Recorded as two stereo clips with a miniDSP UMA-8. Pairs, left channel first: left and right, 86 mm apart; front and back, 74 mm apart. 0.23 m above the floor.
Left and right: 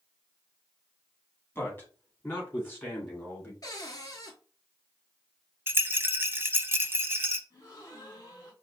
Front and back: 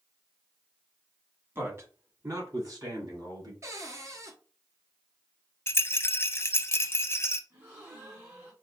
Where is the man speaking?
140° left, 1.5 m; by 3.5 s 155° left, 3.5 m.